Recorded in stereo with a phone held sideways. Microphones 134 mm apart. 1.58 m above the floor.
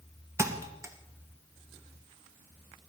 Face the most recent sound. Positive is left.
turn(degrees=-20)  # may be behind; listen again after turning